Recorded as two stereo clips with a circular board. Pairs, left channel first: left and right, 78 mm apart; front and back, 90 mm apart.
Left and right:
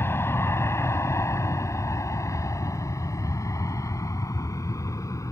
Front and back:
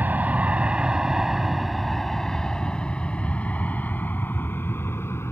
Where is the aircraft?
125° left; by 5.3 s 55° left.